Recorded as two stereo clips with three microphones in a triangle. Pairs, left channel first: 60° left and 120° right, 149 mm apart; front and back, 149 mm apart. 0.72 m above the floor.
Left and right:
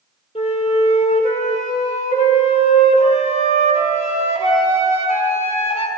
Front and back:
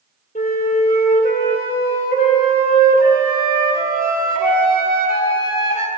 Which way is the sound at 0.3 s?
15° left.